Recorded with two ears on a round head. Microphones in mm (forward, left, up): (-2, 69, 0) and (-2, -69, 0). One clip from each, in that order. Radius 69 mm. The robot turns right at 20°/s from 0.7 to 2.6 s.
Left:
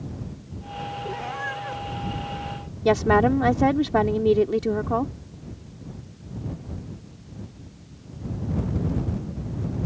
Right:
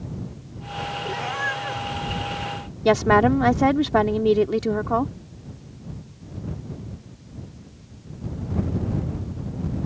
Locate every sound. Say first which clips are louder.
1.1 s a cat meowing: right 5 dB; 40° right (ahead or behind); by 1.8 s 25° right (ahead or behind)
2.9 s a woman speaking: right 2 dB; 20° right (ahead or behind)